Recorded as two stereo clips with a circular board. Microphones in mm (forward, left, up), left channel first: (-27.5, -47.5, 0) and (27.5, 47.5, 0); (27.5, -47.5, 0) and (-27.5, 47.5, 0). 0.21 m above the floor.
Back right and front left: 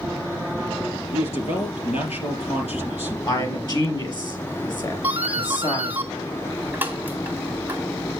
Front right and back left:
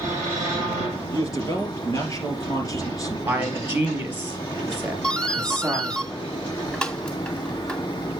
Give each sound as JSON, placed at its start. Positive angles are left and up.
{"t": 1.1, "sound": "a man speaking", "azimuth_deg": -115, "distance_m": 4.0}
{"t": 3.3, "sound": "a man speaking", "azimuth_deg": -170, "distance_m": 4.0}
{"t": 5.0, "sound": "a doorbell", "azimuth_deg": 10, "distance_m": 2.0}